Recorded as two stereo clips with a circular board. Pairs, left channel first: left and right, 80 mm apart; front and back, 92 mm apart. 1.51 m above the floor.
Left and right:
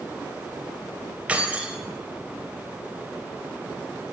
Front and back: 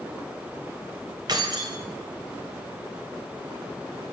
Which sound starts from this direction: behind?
Keys jangling, at 1.3 s.